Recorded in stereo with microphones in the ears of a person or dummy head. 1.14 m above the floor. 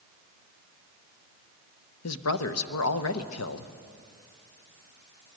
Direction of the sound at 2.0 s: 75° left (ahead or behind).